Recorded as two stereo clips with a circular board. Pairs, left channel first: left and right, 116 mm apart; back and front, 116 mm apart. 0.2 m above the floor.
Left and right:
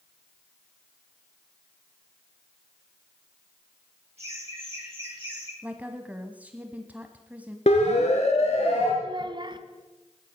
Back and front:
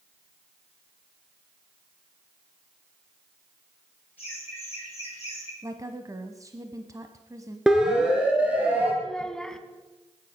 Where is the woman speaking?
25° right, 1.1 m.